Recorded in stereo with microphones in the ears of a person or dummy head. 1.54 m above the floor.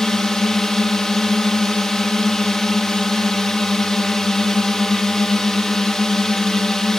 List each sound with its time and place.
0.0 s a drone: 5° left (ahead or behind)